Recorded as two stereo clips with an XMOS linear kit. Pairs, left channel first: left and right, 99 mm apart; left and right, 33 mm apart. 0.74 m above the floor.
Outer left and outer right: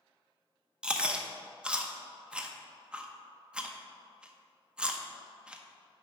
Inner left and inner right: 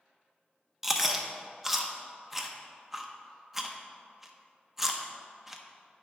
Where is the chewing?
10° right (ahead or behind), 0.6 m.